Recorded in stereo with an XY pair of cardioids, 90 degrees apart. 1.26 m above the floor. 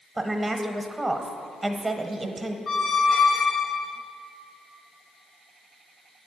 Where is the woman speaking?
20° right, 0.8 m.